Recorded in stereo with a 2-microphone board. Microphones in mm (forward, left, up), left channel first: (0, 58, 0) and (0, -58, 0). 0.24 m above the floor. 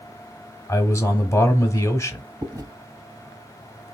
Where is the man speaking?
30° left (ahead or behind), 1.1 m.